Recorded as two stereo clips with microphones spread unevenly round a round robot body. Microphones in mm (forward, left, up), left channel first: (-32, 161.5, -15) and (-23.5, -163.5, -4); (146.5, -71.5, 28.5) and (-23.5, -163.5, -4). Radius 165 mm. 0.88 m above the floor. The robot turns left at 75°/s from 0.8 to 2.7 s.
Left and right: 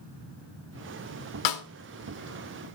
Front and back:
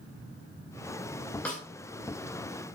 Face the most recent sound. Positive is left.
turn(degrees=20)